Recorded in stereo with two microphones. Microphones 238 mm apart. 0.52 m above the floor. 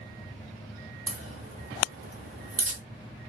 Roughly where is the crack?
Right.